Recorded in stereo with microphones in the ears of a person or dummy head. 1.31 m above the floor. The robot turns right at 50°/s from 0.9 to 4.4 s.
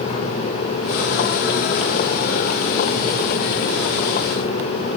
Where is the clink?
I don't hear a clink.